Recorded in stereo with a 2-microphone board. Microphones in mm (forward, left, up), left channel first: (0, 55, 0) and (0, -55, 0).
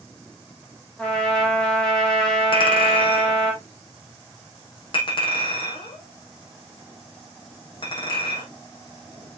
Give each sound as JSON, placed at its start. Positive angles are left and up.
{"t": 1.0, "sound": "a trumpet", "side_deg": 5, "distance_m": 3.5}
{"t": 2.5, "sound": "a clink", "side_deg": 50, "distance_m": 4.5}